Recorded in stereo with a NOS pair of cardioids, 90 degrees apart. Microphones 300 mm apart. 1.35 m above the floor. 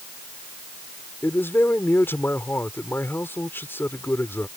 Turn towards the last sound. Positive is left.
turn(degrees=10)